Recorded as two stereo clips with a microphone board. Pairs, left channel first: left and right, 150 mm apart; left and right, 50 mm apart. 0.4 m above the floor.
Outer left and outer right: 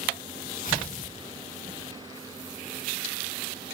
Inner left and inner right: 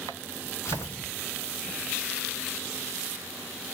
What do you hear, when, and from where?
0.7 s tearing paper: 65° left (ahead or behind), 2.5 m